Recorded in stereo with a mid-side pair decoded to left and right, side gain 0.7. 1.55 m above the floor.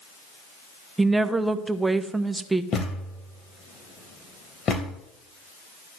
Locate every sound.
1.0 s a woman speaking: 15° right, 1.0 m
2.7 s a thud: 35° left, 3.5 m